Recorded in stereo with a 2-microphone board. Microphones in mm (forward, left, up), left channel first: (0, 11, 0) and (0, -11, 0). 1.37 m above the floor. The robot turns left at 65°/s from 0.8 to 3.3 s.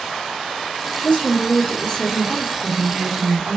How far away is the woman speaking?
About 1.2 m.